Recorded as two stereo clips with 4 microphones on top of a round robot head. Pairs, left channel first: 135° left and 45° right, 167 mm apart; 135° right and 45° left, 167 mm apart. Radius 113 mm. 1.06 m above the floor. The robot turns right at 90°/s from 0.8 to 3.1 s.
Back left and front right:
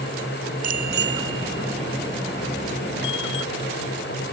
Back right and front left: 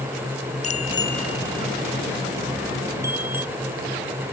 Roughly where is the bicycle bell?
Right.